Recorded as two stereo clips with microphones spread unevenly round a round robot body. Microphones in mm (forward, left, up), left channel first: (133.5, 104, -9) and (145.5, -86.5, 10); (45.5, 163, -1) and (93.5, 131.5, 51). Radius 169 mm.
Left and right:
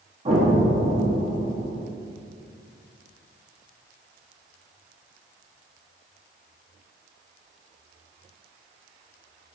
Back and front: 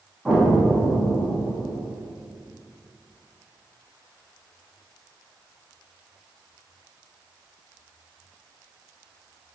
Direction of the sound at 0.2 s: 155° right.